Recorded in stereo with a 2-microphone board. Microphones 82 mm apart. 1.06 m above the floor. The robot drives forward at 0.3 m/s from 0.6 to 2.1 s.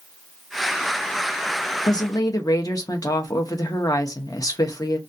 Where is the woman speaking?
50° left (ahead or behind), 0.6 m; by 5.0 s 45° left (ahead or behind), 0.7 m.